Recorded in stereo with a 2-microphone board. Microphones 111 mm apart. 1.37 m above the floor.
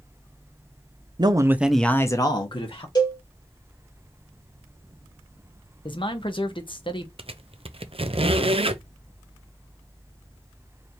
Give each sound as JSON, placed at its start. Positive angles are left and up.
{"t": 1.2, "sound": "a man speaking", "side_deg": -40, "distance_m": 0.8}
{"t": 3.0, "sound": "a cowbell", "side_deg": 40, "distance_m": 2.0}
{"t": 5.8, "sound": "a man speaking", "side_deg": 50, "distance_m": 1.0}
{"t": 7.2, "sound": "a squeak", "side_deg": -55, "distance_m": 0.6}